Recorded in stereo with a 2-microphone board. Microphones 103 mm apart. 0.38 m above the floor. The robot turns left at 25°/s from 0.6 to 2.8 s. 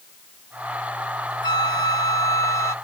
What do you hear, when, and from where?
1.4 s a flute: 75° left; by 2.8 s 45° left